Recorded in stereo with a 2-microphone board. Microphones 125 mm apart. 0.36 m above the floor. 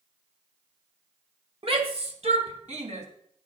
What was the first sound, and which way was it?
A shout, 50° right (ahead or behind).